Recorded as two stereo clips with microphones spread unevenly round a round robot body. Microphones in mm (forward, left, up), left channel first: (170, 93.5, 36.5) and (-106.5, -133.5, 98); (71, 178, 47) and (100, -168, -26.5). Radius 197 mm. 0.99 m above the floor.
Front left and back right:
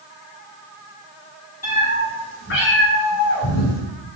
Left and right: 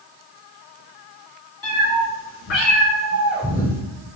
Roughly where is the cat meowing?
Behind left.